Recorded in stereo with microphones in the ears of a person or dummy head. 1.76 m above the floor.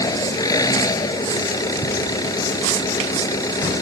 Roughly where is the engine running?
Centre.